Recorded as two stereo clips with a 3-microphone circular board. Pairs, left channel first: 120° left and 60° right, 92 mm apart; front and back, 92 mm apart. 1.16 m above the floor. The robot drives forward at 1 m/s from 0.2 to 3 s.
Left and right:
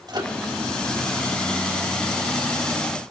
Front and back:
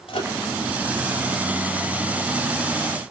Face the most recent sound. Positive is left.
turn(degrees=-95)